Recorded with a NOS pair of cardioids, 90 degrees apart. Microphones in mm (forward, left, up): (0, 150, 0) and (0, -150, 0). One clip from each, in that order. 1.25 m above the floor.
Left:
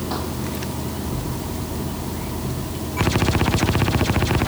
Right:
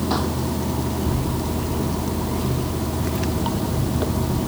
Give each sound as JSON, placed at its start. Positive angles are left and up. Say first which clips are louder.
{"t": 0.0, "sound": "running water", "louder": "right 3 dB", "azimuth_deg": -30}